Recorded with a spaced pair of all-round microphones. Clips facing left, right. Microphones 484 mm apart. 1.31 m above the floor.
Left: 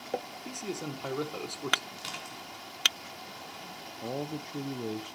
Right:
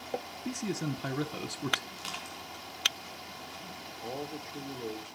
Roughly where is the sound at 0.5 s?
Right.